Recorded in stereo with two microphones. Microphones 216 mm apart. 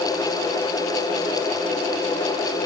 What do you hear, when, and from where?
Only background noise.